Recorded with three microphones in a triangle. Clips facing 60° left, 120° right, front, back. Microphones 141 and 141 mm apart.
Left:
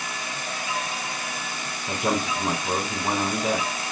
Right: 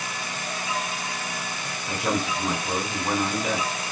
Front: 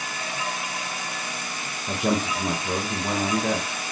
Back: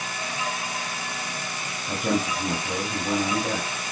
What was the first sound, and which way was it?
A man speaking, 5° right.